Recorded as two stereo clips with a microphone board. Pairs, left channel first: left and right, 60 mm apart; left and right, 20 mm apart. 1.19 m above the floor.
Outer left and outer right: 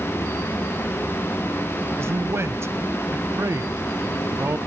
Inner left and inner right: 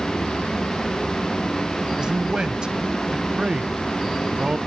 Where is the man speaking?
45° right (ahead or behind), 0.8 m.